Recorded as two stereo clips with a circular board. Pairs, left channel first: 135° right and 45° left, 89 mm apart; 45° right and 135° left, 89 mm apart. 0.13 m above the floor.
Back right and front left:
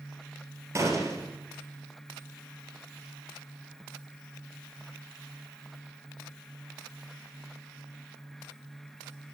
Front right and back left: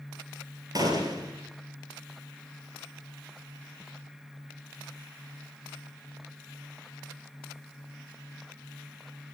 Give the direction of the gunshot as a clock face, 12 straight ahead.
9 o'clock.